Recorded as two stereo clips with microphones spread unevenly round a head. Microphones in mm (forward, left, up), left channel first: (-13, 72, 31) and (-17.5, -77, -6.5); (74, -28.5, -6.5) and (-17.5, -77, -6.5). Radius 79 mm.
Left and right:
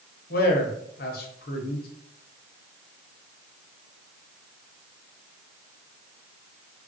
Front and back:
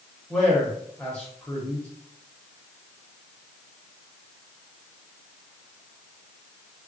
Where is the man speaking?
110° left, 0.9 m.